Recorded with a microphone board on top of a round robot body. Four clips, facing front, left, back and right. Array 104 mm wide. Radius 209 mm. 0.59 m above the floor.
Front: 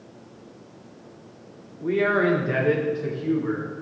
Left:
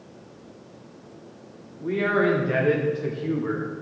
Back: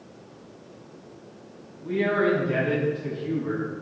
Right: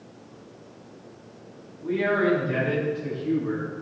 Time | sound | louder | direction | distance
1.8 | a man speaking | left 1 dB, front 2 dB | 20° left | 2.5 m